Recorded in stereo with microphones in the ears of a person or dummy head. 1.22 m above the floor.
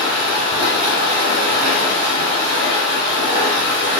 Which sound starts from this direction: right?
Running water, at 0.0 s.